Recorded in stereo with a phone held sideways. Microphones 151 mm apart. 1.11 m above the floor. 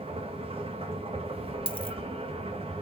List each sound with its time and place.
0.0 s a machine running: 40° right (ahead or behind), 1.6 m
1.7 s a dropped coin: 35° left (ahead or behind), 0.8 m